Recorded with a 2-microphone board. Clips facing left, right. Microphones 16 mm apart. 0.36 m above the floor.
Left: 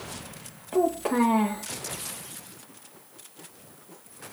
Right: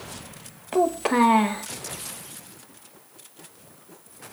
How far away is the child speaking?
About 0.5 m.